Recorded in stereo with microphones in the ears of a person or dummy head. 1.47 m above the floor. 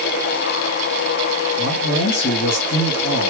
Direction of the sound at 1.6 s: 80° left.